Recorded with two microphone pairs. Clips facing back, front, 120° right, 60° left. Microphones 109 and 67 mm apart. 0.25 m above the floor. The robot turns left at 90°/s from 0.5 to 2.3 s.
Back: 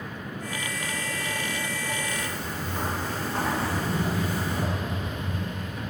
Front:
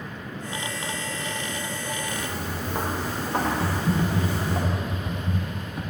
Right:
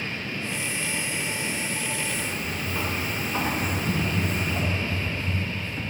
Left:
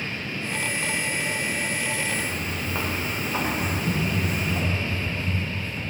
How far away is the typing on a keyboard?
About 1.4 m.